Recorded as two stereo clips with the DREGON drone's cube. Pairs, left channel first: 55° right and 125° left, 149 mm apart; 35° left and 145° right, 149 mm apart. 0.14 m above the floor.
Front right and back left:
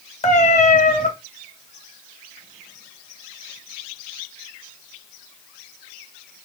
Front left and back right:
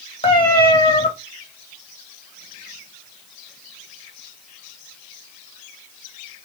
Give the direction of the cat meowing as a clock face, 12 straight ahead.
1 o'clock.